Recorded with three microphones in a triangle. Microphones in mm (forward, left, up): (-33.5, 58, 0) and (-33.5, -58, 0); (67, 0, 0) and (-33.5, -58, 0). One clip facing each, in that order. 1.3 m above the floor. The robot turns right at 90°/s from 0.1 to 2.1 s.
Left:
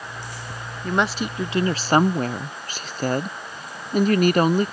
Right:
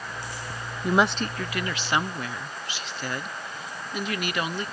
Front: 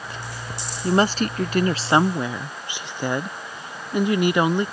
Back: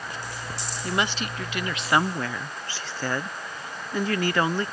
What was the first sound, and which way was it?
A woman speaking, 20° right.